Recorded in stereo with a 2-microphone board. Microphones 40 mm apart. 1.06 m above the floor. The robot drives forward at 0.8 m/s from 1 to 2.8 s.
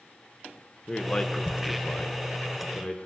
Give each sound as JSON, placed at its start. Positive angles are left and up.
{"t": 0.9, "sound": "a man speaking", "side_deg": 25, "distance_m": 0.8}